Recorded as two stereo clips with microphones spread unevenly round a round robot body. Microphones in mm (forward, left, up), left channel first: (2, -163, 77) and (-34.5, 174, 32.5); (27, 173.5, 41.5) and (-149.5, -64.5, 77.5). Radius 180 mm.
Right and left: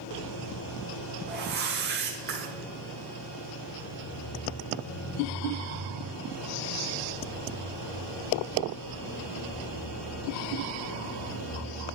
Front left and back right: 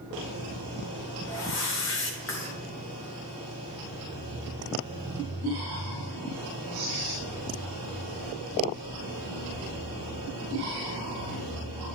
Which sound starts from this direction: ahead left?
A whoosh, at 1.3 s.